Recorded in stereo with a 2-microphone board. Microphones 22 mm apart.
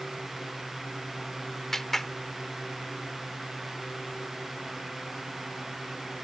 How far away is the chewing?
No chewing in this recording.